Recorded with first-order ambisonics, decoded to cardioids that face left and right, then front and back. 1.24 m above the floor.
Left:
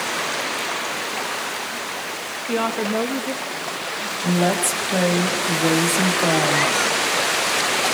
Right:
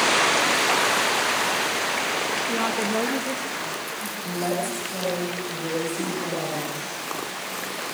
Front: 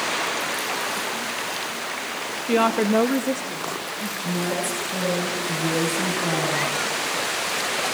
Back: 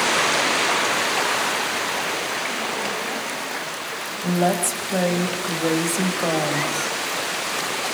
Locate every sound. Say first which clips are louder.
2.5 s a woman speaking: left 2 dB, front 5 dB; 20° left, 1.3 m; by 4.1 s 5° right, 3.5 m
4.2 s a woman speaking: left 6 dB, back 6 dB; 140° left, 6 m